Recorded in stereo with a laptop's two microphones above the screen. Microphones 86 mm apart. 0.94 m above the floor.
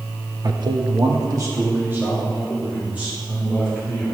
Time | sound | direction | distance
0.4 | a man speaking | 50° right (ahead or behind) | 0.9 m